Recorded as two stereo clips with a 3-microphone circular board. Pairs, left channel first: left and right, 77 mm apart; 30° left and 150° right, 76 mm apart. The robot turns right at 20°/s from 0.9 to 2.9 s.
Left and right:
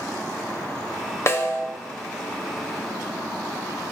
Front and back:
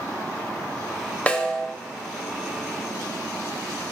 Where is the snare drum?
90° left, 0.9 m; by 1.7 s 100° left, 0.9 m.